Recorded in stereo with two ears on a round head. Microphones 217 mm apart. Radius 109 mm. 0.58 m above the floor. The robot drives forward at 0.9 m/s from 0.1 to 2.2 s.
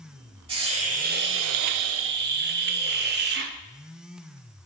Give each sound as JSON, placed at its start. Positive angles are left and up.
{"t": 0.5, "sound": "a hiss", "side_deg": -20, "distance_m": 1.2}